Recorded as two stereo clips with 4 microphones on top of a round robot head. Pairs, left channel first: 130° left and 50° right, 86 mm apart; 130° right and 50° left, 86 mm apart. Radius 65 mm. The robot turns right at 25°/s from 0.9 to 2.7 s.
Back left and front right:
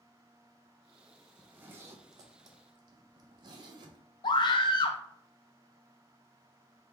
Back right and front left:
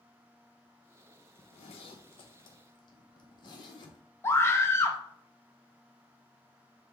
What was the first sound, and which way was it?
A zipper, 125° right.